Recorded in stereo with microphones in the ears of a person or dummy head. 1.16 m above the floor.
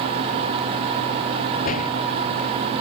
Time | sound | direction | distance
1.6 | a door slam | 45° left (ahead or behind) | ?